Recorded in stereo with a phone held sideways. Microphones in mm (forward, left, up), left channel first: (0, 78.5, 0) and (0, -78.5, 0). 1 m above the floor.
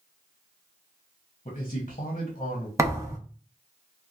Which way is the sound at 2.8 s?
20° right (ahead or behind).